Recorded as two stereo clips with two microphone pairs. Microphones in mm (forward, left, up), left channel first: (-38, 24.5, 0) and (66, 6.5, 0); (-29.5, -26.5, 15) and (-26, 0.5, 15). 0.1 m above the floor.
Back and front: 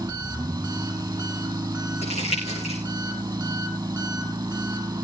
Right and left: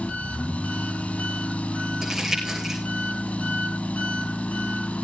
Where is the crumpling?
160° left, 6.5 m.